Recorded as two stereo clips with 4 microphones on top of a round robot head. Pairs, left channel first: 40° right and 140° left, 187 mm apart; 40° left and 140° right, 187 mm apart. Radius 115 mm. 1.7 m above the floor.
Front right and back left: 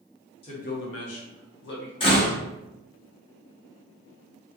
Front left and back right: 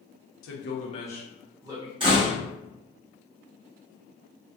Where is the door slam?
90° right, 0.5 m.